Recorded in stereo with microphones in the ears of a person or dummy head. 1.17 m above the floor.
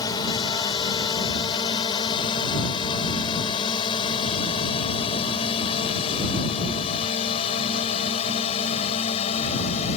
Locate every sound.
0.0 s a drone: 25° left (ahead or behind); by 10.0 s 35° left (ahead or behind)